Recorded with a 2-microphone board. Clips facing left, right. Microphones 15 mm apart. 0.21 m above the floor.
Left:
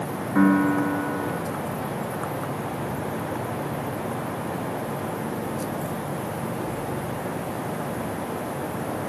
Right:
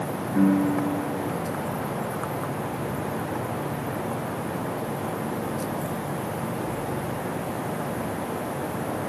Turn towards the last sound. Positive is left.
turn(degrees=45)  # may be behind; listen again after turning